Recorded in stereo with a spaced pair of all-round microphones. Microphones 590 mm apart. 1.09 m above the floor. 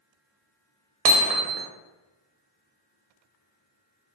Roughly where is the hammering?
Right.